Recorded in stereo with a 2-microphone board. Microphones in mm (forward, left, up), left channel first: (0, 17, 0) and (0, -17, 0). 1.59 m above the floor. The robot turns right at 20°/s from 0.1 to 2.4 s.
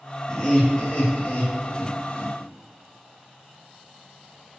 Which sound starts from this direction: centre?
Laughter, at 0.3 s.